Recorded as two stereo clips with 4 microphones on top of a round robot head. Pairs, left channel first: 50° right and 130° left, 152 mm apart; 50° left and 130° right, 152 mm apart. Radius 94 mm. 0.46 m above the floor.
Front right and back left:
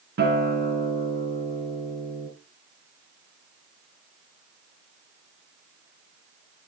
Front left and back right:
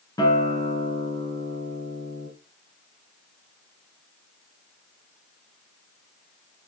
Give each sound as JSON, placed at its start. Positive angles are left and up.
{"t": 0.2, "sound": "a guitar", "azimuth_deg": 115, "distance_m": 3.5}